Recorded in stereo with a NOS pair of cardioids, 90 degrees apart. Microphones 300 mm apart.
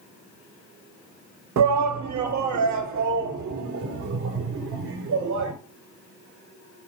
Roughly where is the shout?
Ahead right.